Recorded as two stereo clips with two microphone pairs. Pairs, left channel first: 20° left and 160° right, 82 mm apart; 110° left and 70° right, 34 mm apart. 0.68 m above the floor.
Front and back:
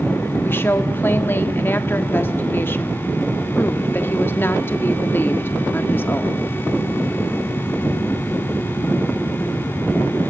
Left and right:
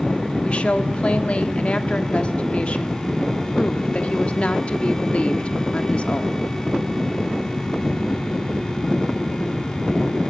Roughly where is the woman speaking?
Left.